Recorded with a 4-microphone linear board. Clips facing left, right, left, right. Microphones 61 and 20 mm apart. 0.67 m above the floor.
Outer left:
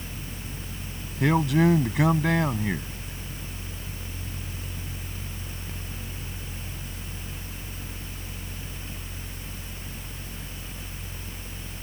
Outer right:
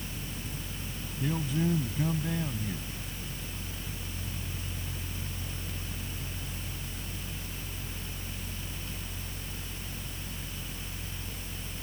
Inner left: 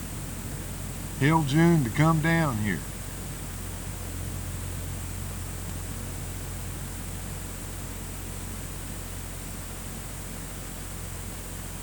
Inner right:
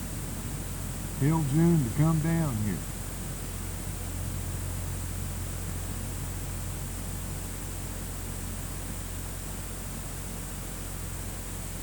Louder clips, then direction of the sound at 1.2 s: Outer left 10 dB, inner left 4 dB; 80° left.